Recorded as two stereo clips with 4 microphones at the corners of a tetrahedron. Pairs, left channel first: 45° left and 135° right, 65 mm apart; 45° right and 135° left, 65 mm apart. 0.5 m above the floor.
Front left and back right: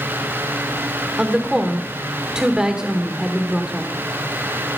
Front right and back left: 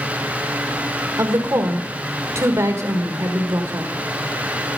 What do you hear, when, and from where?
1.2 s a woman speaking: 150° left, 1.5 m